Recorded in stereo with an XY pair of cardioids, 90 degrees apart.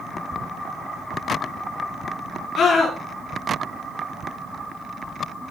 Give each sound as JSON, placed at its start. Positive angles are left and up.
{"t": 2.5, "sound": "a scream", "azimuth_deg": 60, "distance_m": 5.5}